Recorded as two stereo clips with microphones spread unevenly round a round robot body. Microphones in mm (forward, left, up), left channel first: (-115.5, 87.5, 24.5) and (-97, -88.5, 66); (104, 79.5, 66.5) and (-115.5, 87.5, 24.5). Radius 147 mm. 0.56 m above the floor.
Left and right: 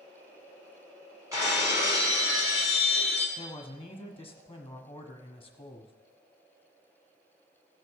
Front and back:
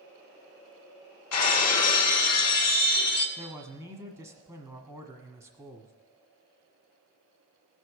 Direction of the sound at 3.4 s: 130° left.